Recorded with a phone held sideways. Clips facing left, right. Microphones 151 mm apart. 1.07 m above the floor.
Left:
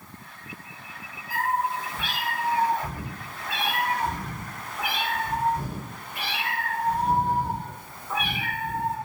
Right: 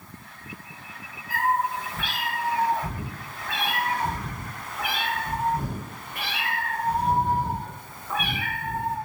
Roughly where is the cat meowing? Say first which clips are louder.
Right 2 dB; right.